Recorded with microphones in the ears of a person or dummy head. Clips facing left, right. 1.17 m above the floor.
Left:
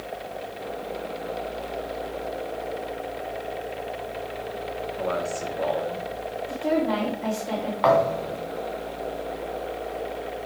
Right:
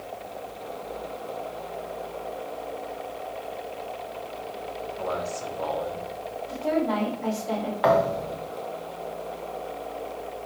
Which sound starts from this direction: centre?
A thud, at 7.8 s.